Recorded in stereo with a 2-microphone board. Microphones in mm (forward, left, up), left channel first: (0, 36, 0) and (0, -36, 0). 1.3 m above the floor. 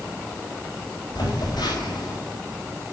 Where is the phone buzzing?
75° left (ahead or behind), 5 m.